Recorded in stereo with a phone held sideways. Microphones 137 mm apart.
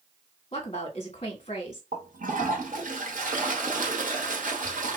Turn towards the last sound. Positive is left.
turn(degrees=-75)  # may be behind; listen again after turning